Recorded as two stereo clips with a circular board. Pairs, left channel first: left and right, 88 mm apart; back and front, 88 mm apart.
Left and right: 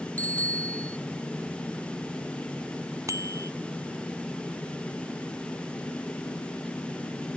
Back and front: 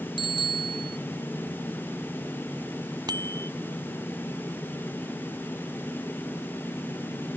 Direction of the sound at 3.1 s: 40° right.